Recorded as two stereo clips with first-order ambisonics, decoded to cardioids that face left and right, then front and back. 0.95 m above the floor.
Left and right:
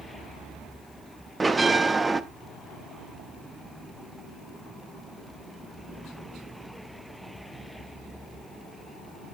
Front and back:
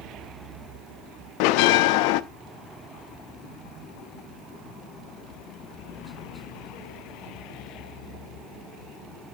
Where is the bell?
10° right, 0.6 m.